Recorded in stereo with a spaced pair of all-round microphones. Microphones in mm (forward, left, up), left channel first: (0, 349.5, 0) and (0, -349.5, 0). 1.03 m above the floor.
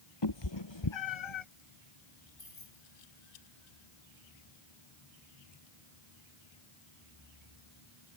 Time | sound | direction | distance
0.2 | a cat meowing | 35° left (ahead or behind) | ?
2.4 | keys jangling | 45° left (ahead or behind) | ?